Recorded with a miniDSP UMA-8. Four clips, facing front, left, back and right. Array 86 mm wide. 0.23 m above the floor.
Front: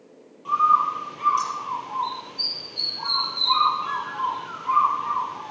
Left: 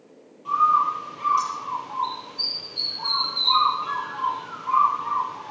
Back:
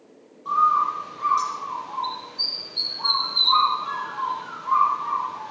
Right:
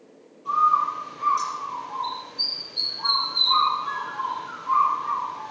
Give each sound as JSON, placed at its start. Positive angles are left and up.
{"t": 0.5, "sound": "a bird", "azimuth_deg": 20, "distance_m": 6.5}